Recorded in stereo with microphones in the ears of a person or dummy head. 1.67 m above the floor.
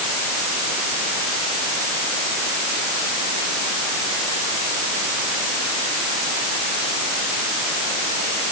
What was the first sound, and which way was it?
Only background noise.